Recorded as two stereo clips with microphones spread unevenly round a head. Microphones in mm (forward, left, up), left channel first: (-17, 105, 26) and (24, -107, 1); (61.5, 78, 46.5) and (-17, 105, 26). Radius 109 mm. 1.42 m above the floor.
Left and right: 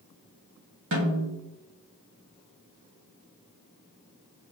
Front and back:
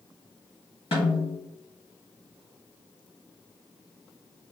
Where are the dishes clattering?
No dishes clattering in this recording.